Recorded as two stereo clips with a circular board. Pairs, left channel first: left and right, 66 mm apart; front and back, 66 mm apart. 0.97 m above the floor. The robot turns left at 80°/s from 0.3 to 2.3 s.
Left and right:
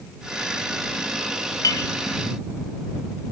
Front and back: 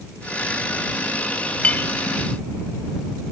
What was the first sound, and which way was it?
A clink, 70° left.